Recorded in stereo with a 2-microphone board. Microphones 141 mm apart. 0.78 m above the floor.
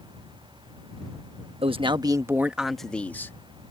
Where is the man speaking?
45° right (ahead or behind); by 3.4 s 20° left (ahead or behind).